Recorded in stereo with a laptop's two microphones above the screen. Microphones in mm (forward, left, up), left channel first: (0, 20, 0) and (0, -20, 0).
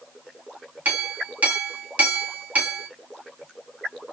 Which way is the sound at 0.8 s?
40° right (ahead or behind).